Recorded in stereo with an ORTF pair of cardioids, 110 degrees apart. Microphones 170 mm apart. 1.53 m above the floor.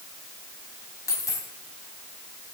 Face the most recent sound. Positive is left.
turn(degrees=20)